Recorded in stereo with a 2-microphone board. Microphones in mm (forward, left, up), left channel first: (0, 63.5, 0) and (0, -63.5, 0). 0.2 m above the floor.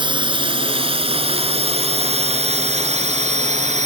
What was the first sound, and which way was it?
A drone, 40° right (ahead or behind).